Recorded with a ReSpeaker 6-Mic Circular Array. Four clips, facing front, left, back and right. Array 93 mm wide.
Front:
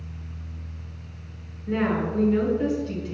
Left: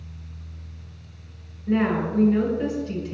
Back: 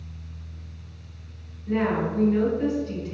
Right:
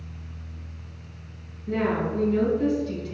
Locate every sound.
1.7 s a woman speaking: 85° left, 1.5 m